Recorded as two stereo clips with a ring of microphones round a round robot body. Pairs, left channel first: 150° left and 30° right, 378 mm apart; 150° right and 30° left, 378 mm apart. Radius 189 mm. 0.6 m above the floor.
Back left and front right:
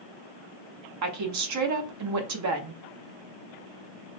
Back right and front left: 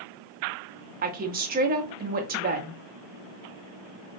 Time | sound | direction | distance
1.0 | a woman speaking | 25° right | 0.6 m